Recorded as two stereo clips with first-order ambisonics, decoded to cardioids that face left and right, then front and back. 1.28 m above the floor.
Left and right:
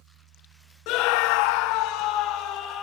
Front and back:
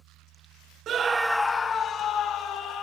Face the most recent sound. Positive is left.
turn(degrees=45)